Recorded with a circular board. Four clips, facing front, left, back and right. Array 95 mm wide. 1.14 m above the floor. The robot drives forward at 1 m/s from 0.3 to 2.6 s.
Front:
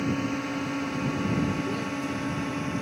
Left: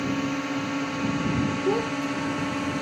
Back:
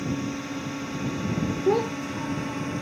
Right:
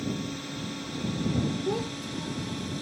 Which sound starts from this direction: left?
A drone, at 0.0 s.